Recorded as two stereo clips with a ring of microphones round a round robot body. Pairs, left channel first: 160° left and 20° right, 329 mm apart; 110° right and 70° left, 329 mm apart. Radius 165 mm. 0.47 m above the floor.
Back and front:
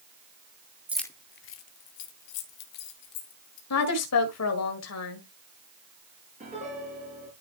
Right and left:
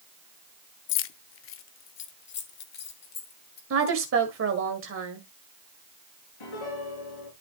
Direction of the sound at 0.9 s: 100° right.